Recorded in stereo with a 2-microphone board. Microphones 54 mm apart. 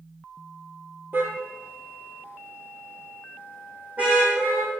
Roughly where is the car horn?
Right.